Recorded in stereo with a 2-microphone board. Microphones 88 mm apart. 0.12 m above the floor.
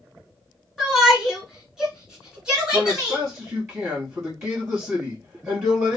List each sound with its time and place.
0.8 s a shout: 5° right (ahead or behind), 1.8 m; by 3.2 s 10° right (ahead or behind), 1.6 m
2.7 s a man speaking: 25° right (ahead or behind), 2.5 m